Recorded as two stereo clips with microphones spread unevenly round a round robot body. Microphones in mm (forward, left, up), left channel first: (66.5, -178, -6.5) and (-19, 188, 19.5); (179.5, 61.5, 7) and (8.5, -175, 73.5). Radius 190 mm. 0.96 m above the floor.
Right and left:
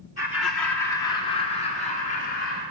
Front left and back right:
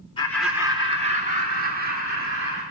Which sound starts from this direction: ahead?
Laughter, at 0.2 s.